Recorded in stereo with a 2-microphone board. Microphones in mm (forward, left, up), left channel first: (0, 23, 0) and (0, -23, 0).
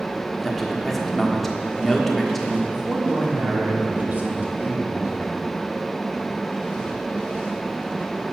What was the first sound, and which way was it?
A man speaking, 5° left (ahead or behind).